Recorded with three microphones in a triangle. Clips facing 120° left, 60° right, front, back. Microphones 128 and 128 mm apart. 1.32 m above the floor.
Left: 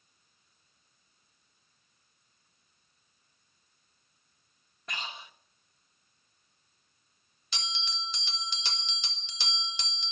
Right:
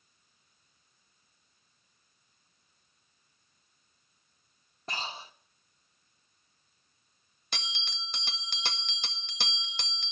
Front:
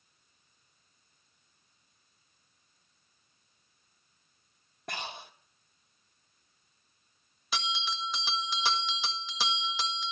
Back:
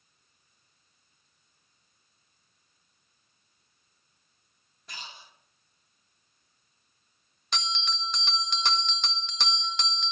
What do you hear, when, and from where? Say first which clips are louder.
4.9 s breathing: right 3 dB, front 7 dB; 5° right, 0.7 m
7.5 s a bell: left 2 dB, even; 85° right, 0.8 m